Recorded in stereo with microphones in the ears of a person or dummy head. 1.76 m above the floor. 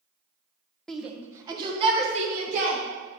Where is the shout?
Centre (ahead or behind), 1.0 m; by 2.8 s 45° right (ahead or behind), 2 m.